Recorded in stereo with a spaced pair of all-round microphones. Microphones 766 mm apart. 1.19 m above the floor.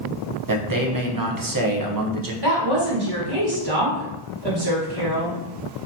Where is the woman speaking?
30° right (ahead or behind), 1.4 m.